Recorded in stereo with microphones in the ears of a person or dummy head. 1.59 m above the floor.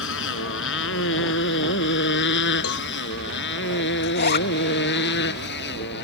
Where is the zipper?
55° left (ahead or behind).